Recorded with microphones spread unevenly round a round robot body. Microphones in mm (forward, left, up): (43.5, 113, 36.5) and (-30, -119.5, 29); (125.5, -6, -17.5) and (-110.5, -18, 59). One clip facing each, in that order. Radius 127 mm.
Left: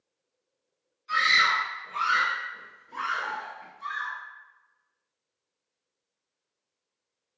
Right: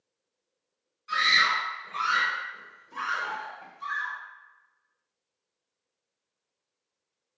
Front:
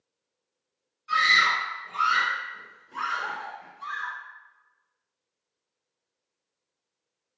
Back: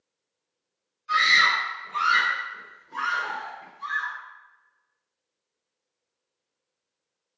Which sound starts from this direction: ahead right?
A scream, at 1.1 s.